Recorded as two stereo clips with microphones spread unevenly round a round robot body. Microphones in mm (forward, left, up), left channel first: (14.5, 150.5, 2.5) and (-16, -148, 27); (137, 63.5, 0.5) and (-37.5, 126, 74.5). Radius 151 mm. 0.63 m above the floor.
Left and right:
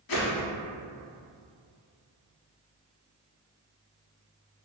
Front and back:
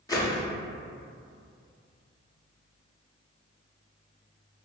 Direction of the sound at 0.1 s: 60° left.